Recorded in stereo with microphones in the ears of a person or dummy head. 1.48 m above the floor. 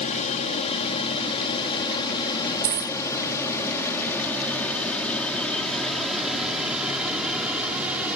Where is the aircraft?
40° left (ahead or behind); by 8.2 s 10° right (ahead or behind).